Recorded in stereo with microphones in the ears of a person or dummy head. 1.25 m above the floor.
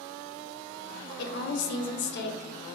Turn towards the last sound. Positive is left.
turn(degrees=50)  # may be behind; listen again after turning